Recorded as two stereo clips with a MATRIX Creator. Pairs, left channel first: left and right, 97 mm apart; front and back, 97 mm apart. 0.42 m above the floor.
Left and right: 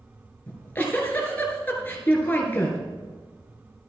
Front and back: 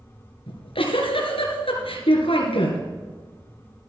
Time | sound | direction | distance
0.5 | a giggle | 20° left | 2.5 m